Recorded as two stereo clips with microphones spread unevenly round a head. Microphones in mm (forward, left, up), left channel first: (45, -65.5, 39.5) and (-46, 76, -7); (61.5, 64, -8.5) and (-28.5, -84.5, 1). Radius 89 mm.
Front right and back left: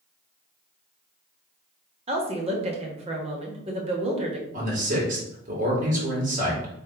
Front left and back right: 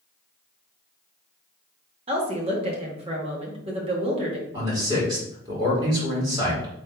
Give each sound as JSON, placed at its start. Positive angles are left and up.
{"t": 2.1, "sound": "a woman speaking", "azimuth_deg": 180, "distance_m": 1.3}
{"t": 4.5, "sound": "a man speaking", "azimuth_deg": 170, "distance_m": 2.5}